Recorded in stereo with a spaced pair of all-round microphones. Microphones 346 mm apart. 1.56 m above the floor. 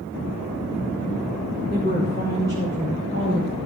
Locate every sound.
1.7 s a woman speaking: 30° right (ahead or behind), 4.5 m; by 3.5 s 45° right (ahead or behind), 5.5 m